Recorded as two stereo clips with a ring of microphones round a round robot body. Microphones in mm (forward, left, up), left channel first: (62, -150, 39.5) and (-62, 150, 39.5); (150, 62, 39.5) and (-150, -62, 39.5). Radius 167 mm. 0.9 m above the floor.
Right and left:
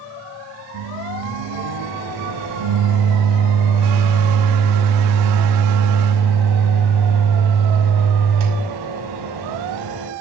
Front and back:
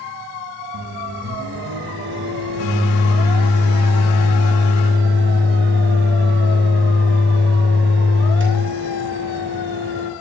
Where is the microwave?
145° left, 6 m.